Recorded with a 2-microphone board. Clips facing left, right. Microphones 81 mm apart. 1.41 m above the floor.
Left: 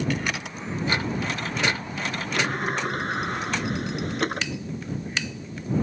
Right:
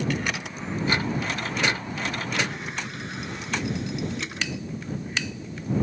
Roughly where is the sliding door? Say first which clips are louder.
Left 4 dB; left.